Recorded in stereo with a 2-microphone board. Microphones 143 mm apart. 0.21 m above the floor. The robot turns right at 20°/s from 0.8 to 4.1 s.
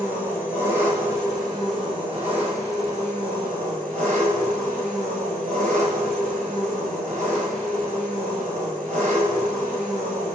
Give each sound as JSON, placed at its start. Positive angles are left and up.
{"t": 0.0, "sound": "an engine running", "azimuth_deg": -165, "distance_m": 1.5}